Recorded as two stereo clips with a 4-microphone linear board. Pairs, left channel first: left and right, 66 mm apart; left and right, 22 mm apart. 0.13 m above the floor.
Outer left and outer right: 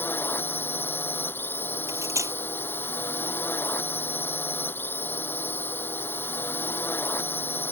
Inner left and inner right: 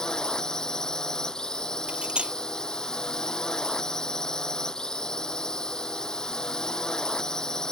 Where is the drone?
35° left (ahead or behind).